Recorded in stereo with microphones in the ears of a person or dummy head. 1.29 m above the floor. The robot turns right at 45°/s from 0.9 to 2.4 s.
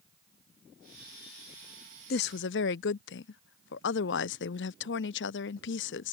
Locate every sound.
2.1 s a woman speaking: 50° left (ahead or behind); by 6.2 s 55° left (ahead or behind)